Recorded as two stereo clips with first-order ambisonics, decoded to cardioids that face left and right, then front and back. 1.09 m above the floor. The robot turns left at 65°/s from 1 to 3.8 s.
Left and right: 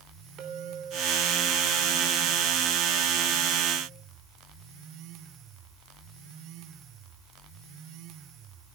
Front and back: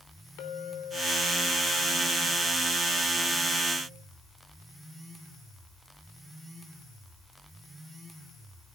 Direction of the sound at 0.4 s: 35° right.